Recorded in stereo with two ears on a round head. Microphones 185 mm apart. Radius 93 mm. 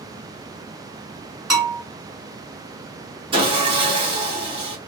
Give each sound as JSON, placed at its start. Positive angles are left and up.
{"t": 1.5, "sound": "a bell", "side_deg": -5, "distance_m": 1.6}
{"t": 3.3, "sound": "sawing", "side_deg": -25, "distance_m": 1.3}